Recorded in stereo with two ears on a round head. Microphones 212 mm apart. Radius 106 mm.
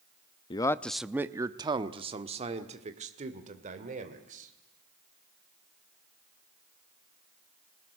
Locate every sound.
0.5 s a man speaking: 20° left (ahead or behind), 0.5 m; by 4.5 s 35° right (ahead or behind), 2.5 m